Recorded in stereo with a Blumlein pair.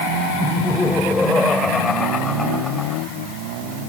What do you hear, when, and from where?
0.4 s laughter: 10° left; by 3.0 s 15° left